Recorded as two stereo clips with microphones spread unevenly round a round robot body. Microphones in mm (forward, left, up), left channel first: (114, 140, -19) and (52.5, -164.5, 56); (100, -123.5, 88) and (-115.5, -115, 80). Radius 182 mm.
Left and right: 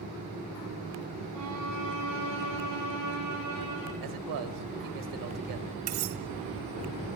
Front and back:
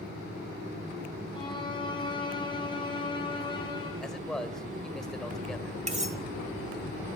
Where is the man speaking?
90° right, 1.9 m.